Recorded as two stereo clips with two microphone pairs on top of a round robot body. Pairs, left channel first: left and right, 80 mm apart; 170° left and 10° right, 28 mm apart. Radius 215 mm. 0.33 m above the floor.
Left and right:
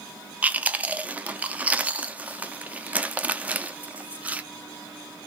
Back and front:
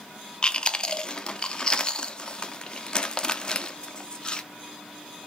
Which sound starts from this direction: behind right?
Chewing, at 0.4 s.